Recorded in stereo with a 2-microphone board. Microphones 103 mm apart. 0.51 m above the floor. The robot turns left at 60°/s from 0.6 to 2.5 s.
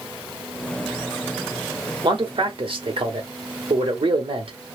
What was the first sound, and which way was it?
A man speaking, 55° right (ahead or behind).